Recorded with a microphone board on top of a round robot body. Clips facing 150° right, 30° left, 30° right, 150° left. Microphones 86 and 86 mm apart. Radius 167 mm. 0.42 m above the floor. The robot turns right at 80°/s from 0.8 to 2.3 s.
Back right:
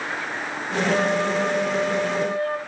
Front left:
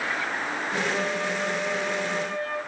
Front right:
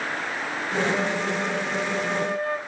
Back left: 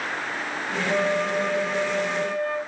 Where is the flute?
155° left, 4.5 m; by 2.6 s 90° right, 4.5 m.